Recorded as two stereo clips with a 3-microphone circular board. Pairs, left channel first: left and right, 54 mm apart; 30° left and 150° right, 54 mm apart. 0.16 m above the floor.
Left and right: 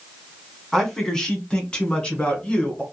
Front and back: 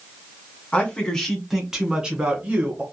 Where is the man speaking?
15° left, 1.0 m; by 2.8 s 160° left, 1.6 m.